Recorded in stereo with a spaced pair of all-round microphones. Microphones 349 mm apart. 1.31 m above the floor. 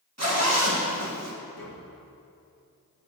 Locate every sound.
0.2 s a zipper: 45° right (ahead or behind), 1.5 m
1.6 s tapping: 80° left, 1.4 m